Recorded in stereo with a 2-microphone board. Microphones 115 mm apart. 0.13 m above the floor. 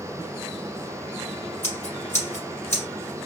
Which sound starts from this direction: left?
Scissors, at 1.6 s.